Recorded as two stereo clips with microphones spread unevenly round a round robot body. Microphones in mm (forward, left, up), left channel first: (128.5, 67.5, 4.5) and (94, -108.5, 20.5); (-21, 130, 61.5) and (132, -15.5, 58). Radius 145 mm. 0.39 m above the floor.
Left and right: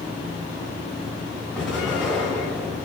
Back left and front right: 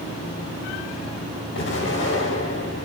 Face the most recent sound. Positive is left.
turn(degrees=170)